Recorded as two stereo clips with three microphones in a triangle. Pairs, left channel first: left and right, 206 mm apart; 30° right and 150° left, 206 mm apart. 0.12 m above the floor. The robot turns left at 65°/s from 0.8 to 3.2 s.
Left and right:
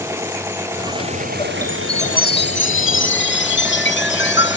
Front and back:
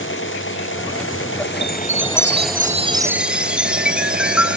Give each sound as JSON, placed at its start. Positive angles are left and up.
{"t": 0.0, "sound": "an engine running", "azimuth_deg": -10}
{"t": 1.6, "sound": "a chime", "azimuth_deg": 170}